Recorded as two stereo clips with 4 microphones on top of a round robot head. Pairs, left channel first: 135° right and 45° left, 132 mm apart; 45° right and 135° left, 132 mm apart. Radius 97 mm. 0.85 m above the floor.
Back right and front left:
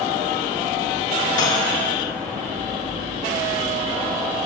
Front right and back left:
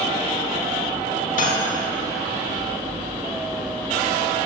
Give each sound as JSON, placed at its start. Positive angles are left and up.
{"t": 1.4, "sound": "cutlery clinking", "azimuth_deg": -70, "distance_m": 2.0}